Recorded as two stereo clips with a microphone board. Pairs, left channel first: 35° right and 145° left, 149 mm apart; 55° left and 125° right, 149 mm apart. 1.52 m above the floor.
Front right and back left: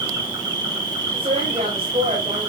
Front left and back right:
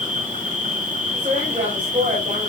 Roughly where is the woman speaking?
Behind.